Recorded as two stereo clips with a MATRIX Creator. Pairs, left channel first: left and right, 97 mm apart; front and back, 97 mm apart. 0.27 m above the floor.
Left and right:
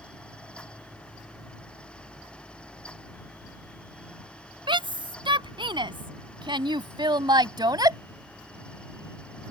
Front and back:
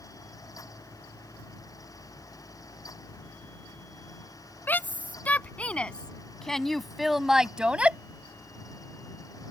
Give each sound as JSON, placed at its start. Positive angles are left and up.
{"t": 4.7, "sound": "a shout", "azimuth_deg": -70}